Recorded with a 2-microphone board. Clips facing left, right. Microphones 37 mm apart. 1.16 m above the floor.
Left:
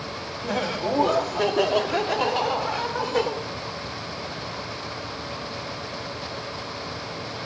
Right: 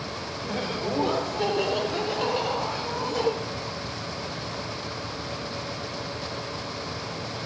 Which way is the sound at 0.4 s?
75° left (ahead or behind).